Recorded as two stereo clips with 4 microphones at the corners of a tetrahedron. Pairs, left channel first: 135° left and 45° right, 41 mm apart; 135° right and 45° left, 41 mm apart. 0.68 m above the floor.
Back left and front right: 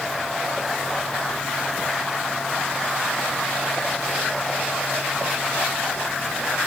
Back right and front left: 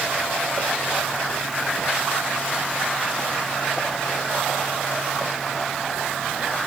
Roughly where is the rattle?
No rattle in this recording.